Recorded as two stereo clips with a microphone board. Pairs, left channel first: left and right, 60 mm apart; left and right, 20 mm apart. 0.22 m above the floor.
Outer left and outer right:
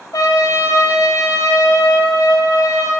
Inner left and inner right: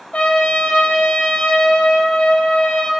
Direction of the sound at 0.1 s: 80° left.